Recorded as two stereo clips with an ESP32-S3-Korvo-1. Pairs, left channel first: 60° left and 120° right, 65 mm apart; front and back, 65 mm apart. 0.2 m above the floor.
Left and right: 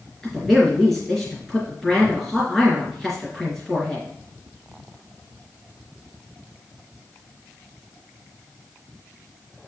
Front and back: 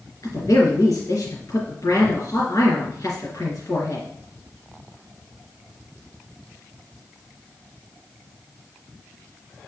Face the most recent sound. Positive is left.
turn(degrees=-20)